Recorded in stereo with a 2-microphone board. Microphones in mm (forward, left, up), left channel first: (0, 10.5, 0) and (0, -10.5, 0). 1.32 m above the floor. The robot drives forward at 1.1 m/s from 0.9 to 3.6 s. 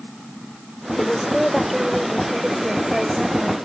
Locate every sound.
1.0 s a woman speaking: 10° right (ahead or behind); by 3.6 s 5° right (ahead or behind)